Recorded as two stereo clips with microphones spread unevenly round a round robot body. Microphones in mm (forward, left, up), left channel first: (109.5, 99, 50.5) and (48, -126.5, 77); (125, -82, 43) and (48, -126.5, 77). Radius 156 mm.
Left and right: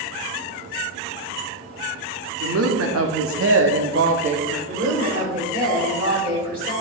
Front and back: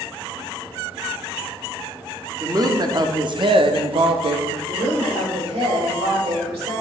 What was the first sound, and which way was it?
A woman speaking, 90° right.